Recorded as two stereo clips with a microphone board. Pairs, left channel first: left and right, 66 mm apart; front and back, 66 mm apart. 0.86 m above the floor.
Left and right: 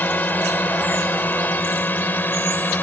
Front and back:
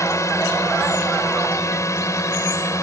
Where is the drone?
30° left; by 2.8 s 35° left.